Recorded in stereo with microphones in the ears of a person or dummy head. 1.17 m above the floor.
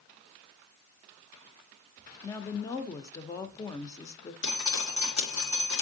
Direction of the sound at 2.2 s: 15° left (ahead or behind).